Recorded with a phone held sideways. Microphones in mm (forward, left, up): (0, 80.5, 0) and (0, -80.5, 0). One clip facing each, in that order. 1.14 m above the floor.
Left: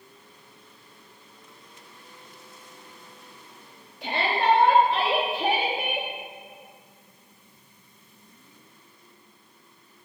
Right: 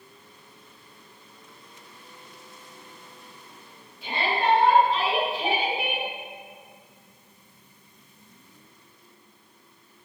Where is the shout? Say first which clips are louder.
Left 1 dB; 70° left (ahead or behind), 3 m; by 6.1 s 50° left (ahead or behind), 2.5 m.